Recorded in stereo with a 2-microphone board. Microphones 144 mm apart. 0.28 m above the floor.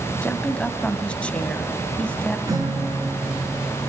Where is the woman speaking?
10° left (ahead or behind), 1.8 m.